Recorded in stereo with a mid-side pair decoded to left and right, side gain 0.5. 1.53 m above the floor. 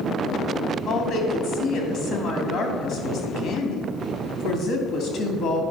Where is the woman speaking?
60° left, 3 m.